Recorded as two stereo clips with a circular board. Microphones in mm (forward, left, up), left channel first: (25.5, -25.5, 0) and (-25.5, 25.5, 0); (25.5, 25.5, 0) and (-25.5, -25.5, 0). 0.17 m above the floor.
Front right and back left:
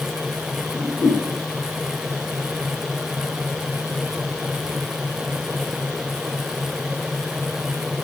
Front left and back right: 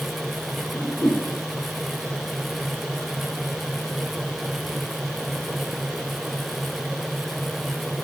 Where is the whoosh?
10° right, 6 m.